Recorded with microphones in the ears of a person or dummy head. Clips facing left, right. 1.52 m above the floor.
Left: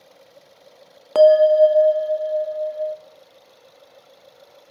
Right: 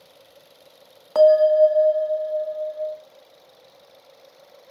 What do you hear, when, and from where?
1.1 s a bell: 40° left (ahead or behind), 0.7 m